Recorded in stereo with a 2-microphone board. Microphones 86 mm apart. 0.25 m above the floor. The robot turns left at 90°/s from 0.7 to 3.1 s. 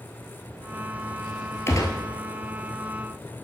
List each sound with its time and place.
1.7 s a gunshot: 30° left (ahead or behind), 1.1 m; by 2.0 s 60° left (ahead or behind), 1.1 m